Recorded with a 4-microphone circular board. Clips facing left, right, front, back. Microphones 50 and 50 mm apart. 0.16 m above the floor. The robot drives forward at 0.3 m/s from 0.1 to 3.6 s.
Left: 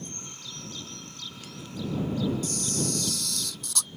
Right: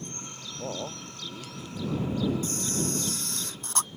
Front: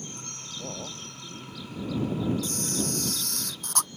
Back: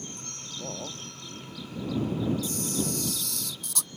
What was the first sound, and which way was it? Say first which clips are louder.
A man speaking: right 8 dB, back 1 dB; 95° right.